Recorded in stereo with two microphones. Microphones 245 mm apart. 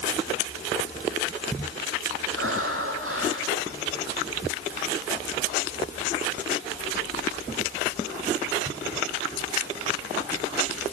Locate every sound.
2.4 s breathing: 60° right (ahead or behind), 5.5 m